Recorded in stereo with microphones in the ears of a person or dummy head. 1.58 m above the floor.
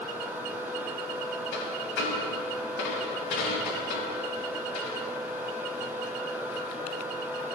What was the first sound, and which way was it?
A dropped coin, 60° left (ahead or behind).